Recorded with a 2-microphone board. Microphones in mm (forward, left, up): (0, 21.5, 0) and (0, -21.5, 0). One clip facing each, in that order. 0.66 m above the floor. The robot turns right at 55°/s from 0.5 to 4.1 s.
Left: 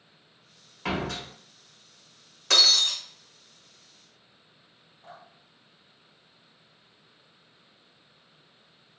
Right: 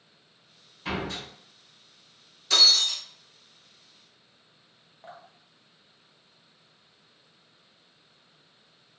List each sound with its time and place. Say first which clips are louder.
0.8 s a door slam: left 2 dB; 65° left (ahead or behind), 1.1 m; by 1.2 s 80° left, 1.1 m
2.5 s breaking glass: even; 65° left (ahead or behind), 0.8 m; by 3.0 s 75° left (ahead or behind), 0.8 m
5.0 s dripping: right 2 dB; 35° right (ahead or behind), 0.8 m